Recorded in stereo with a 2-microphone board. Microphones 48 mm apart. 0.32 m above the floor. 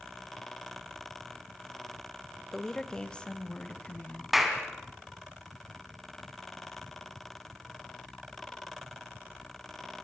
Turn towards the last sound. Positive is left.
turn(degrees=-5)  # may be behind; listen again after turning